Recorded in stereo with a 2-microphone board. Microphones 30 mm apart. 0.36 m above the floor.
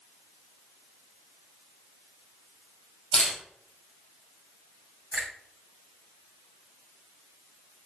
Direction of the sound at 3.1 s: 15° left (ahead or behind).